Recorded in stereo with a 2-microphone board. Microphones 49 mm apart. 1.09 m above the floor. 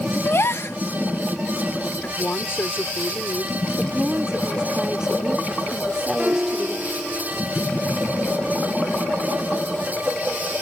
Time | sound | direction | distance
0.2 | a gasp | 60° left (ahead or behind) | ?
2.0 | a woman speaking | 50° left (ahead or behind) | ?
3.8 | a woman speaking | 15° right (ahead or behind) | ?
6.2 | a piano | 30° right (ahead or behind) | ?